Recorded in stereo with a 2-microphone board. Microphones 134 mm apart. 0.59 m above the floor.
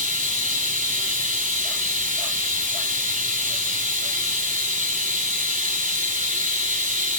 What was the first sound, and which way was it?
Running water, 85° right.